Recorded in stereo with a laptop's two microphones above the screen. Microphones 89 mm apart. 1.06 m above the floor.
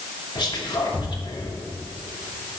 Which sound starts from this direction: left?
Whispering, at 0.3 s.